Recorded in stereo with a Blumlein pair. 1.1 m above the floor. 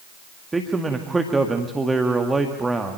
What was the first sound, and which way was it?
A man speaking, 10° right.